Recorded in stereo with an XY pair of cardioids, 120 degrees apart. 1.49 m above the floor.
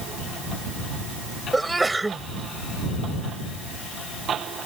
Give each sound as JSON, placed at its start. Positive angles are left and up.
{"t": 1.5, "sound": "a sneeze", "azimuth_deg": -10}